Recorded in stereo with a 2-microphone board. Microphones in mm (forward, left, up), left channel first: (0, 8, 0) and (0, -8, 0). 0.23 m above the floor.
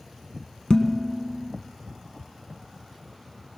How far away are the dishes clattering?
About 1.5 m.